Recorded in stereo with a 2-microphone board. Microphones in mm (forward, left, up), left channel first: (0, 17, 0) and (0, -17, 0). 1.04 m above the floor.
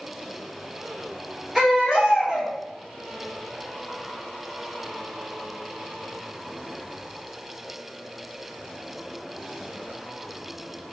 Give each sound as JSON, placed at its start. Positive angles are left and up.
{"t": 1.6, "sound": "a baby crying", "side_deg": 0, "distance_m": 1.3}